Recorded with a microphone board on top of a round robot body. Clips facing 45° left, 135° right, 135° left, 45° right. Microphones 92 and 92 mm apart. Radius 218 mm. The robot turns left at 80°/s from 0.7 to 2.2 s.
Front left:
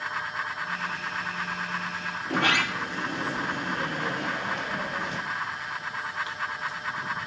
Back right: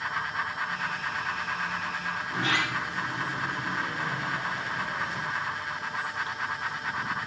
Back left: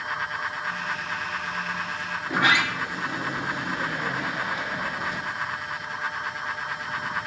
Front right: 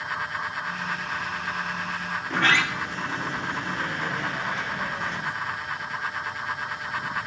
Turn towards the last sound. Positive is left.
turn(degrees=55)